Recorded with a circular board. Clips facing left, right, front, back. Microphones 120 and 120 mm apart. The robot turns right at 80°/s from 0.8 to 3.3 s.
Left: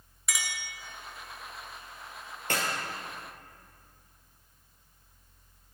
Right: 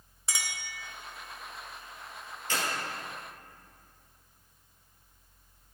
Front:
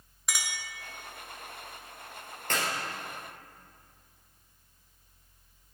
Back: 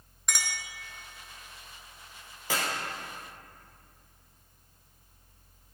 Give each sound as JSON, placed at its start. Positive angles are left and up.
{"t": 0.3, "sound": "a clink", "azimuth_deg": -85, "distance_m": 1.1}
{"t": 2.5, "sound": "a clap", "azimuth_deg": 95, "distance_m": 2.5}